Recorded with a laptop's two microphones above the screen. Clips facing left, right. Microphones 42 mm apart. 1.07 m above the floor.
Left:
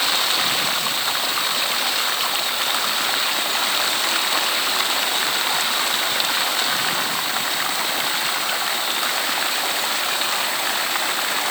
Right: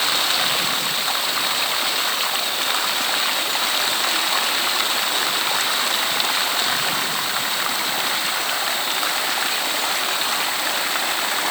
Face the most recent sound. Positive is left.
No sound to turn to.